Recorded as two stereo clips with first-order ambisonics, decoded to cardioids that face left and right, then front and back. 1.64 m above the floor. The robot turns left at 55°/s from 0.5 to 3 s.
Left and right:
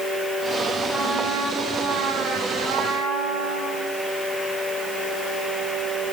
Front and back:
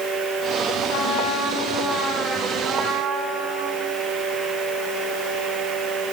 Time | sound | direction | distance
0.9 | a trumpet | 15° right | 4 m